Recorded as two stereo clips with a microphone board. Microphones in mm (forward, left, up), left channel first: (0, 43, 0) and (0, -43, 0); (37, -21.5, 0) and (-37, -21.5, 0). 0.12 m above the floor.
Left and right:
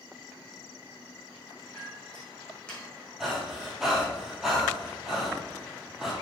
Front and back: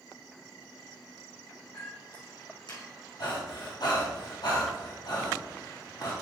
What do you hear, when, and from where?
1.7 s a clink: 10° left, 4 m
3.2 s breathing: 5° right, 3.5 m